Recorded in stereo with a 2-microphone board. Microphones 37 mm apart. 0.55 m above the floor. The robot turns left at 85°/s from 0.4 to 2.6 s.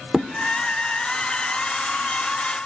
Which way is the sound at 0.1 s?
25° right (ahead or behind).